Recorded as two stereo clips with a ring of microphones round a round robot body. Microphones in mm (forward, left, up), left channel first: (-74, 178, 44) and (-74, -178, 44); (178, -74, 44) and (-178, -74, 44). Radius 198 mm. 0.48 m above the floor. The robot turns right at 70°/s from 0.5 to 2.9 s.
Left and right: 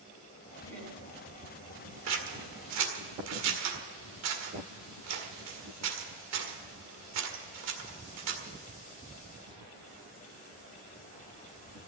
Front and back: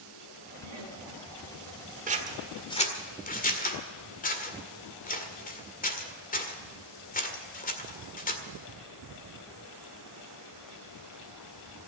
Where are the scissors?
120° right, 1.9 m; by 8.4 s 60° right, 1.9 m.